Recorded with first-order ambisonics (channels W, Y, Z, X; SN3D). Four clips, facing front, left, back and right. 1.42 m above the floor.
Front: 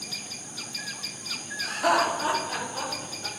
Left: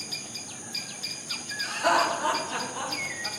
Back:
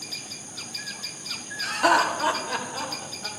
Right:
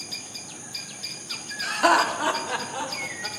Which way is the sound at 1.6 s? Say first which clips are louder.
Right 4 dB, back 3 dB; 105° right.